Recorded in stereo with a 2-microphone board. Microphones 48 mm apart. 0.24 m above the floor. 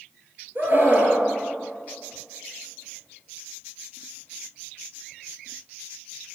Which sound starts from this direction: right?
A scream, at 0.6 s.